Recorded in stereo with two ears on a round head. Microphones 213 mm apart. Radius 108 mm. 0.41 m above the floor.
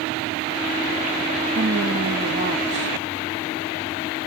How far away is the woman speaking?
About 2 m.